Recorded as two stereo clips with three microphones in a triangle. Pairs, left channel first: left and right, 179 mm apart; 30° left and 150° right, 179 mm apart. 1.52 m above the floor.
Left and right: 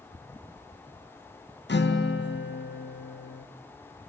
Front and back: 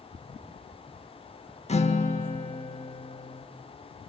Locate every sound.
1.7 s a guitar: 80° left, 2 m